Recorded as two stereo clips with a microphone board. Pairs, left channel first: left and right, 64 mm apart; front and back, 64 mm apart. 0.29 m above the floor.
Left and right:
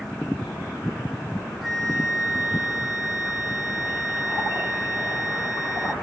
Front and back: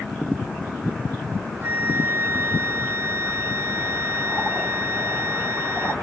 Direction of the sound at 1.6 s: 170° right.